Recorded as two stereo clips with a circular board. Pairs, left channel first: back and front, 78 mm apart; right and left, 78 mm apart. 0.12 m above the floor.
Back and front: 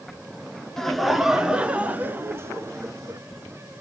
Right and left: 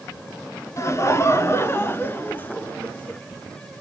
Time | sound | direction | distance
0.8 | laughter | 95° right | 1.5 m